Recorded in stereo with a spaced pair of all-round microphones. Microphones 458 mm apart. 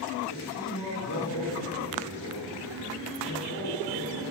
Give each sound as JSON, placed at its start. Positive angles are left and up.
{"t": 0.3, "sound": "a man speaking", "side_deg": 40, "distance_m": 3.5}